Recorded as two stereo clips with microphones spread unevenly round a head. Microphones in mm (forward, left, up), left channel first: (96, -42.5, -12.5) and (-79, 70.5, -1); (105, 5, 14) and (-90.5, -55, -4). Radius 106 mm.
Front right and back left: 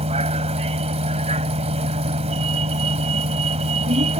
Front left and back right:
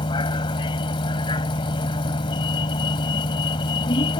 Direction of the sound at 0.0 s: 85° left.